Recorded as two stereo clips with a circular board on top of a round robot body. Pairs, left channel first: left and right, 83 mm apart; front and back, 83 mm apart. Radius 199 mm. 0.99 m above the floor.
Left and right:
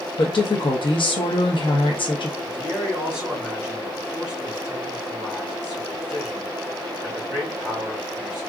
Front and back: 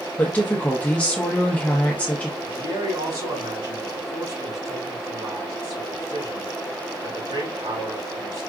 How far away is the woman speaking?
About 0.8 m.